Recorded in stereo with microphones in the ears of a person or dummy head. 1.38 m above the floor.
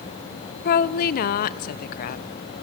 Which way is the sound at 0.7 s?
50° left (ahead or behind).